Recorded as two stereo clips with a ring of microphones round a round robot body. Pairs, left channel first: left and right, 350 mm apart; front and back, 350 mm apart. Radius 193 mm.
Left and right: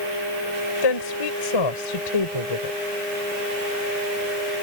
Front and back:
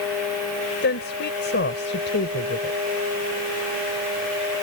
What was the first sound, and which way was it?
A woman speaking, 65° left.